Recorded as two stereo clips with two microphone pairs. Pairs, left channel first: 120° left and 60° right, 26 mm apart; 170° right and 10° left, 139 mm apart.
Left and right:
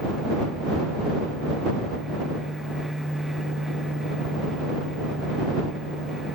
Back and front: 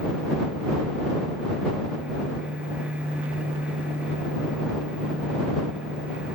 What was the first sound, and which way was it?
Only background noise.